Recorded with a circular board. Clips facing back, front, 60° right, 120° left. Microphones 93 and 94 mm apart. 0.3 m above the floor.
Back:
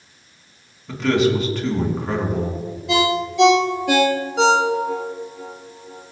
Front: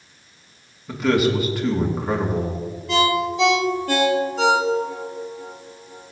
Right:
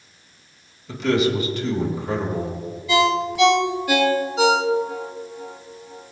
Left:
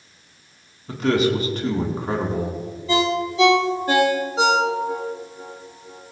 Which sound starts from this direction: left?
A man speaking, at 0.9 s.